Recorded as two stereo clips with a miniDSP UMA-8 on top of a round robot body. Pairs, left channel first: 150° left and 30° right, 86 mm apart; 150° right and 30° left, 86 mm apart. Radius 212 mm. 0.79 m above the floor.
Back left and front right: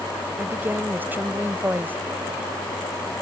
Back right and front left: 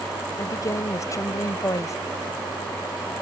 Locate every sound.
0.4 s a woman speaking: 100° right